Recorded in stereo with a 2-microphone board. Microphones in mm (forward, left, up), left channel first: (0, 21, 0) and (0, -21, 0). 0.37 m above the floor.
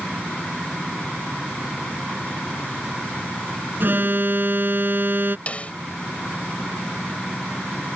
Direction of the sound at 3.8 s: 50° right (ahead or behind).